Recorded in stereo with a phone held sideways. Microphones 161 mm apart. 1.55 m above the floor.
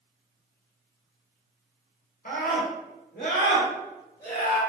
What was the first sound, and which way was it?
A scream, 60° left (ahead or behind).